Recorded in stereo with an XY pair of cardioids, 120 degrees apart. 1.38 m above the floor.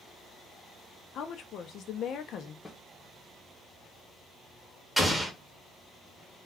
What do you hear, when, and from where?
1.1 s a woman speaking: 60° left, 0.6 m
2.6 s a snare drum: 20° left, 0.7 m
5.0 s an explosion: 5° left, 0.8 m